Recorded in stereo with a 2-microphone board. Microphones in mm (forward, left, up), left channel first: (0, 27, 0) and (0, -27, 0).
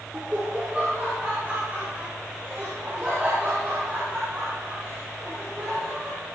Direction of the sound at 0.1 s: 25° right (ahead or behind).